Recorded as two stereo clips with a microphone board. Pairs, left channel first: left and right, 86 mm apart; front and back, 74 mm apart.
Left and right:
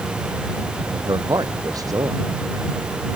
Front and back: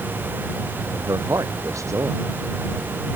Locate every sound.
0.9 s a man speaking: 135° right